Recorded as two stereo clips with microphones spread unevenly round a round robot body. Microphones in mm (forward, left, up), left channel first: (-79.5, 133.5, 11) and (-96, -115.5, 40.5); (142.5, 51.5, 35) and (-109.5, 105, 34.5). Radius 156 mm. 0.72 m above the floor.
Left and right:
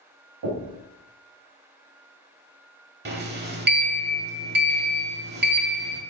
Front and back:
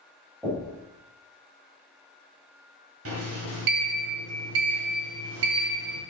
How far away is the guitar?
I don't hear a guitar.